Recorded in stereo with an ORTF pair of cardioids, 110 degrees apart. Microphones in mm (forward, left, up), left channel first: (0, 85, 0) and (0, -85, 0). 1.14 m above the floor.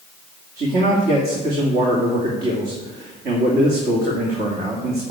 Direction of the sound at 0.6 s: 65° right.